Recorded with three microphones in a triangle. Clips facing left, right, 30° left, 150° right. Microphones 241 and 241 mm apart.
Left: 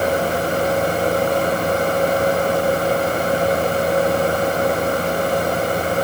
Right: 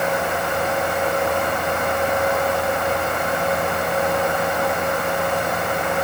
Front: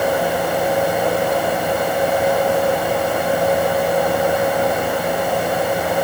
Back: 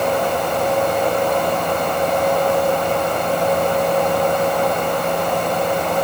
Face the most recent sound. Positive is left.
No sound to turn to.